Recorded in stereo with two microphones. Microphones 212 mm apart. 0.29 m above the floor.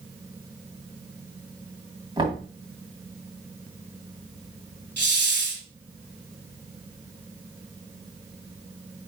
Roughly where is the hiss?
Right.